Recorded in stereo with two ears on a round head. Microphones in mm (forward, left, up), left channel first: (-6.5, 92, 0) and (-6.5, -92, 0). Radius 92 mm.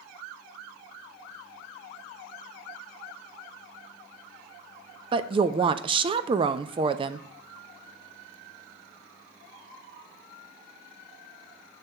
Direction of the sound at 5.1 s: 25° right (ahead or behind).